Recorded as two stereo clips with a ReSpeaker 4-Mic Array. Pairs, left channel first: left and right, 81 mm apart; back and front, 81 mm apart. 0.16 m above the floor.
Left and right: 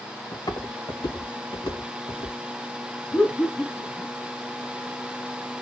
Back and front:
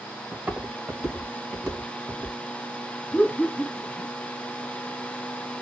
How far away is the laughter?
About 1.2 m.